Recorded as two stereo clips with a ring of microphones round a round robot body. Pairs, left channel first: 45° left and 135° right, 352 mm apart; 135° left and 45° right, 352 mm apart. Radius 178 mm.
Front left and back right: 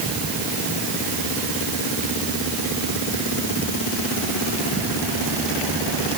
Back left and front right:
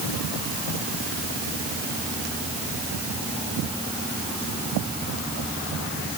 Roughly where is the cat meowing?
No cat meowing in this recording.